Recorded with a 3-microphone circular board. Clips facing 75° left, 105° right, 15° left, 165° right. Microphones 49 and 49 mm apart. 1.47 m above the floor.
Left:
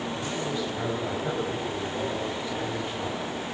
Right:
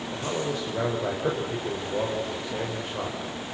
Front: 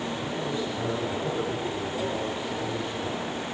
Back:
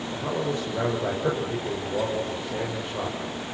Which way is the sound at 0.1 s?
130° right.